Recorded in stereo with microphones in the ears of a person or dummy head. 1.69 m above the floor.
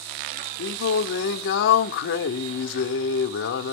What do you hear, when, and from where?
0.6 s singing: 60° left (ahead or behind), 0.7 m